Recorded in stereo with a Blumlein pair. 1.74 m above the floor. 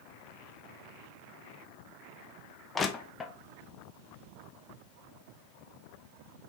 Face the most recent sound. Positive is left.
turn(degrees=15)